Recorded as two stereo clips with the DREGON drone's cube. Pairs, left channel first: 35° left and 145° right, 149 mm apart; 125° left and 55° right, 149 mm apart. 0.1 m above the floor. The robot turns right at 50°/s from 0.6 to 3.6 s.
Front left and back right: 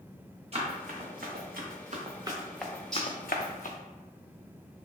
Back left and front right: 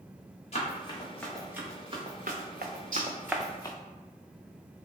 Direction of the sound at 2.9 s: 55° right.